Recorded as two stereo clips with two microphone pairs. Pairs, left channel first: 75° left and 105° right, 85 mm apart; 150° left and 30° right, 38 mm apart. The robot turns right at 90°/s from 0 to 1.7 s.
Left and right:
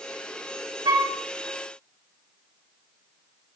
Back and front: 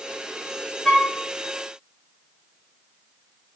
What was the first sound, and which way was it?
A flute, 120° right.